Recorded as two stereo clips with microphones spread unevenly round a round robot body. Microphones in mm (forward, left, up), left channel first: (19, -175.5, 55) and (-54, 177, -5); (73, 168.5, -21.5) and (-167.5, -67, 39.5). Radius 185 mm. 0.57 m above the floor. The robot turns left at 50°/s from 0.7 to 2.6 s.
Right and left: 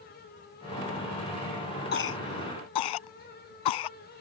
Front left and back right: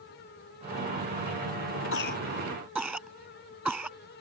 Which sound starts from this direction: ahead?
A cough, at 1.9 s.